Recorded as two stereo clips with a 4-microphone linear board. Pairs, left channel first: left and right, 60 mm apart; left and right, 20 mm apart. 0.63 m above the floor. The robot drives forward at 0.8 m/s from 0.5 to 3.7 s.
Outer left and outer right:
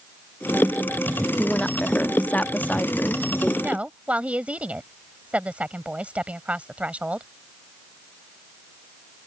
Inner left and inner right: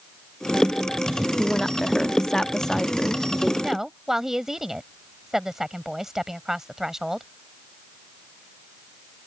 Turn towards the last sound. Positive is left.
turn(degrees=-20)  # may be behind; listen again after turning